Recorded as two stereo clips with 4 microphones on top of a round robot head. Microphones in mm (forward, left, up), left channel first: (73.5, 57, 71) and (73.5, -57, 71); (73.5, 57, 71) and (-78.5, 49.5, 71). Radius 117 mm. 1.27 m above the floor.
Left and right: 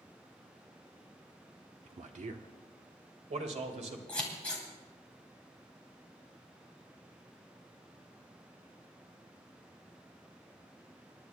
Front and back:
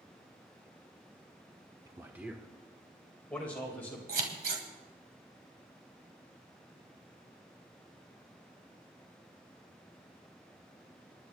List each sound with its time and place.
1.9 s a man speaking: 110° right, 0.9 m; by 4.0 s 75° right, 2.5 m
4.1 s scissors: 170° left, 2 m